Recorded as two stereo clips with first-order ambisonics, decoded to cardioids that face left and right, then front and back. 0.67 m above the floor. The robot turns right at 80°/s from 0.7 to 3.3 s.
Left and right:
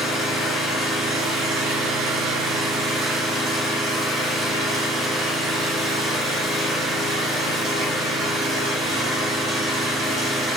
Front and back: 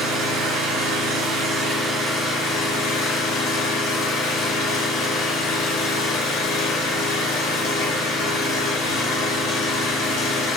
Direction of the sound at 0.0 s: 160° left.